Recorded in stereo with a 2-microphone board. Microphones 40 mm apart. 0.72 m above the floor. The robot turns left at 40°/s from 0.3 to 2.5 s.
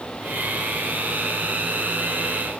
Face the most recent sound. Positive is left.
No sound to turn to.